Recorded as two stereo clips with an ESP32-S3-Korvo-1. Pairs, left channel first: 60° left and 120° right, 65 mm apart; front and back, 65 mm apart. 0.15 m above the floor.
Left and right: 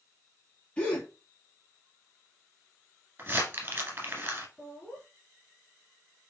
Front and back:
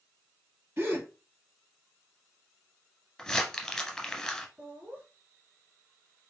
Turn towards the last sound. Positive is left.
turn(degrees=125)